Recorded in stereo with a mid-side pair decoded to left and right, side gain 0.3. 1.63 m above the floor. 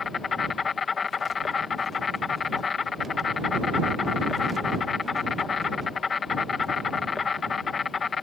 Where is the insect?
60° left.